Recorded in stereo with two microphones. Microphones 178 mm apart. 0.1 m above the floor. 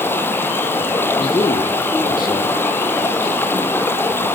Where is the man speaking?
25° left (ahead or behind), 3 m.